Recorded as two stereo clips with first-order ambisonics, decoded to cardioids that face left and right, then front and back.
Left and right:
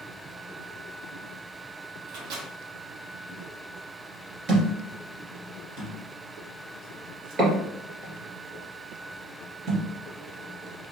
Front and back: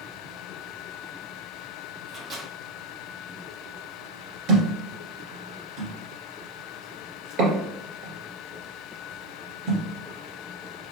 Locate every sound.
2.1 s a microwave: 120° right, 1.3 m
4.5 s a thud: 145° right, 2 m